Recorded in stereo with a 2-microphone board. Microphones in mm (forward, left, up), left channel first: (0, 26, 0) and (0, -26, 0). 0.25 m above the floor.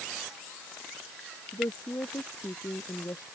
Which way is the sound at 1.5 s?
80° left.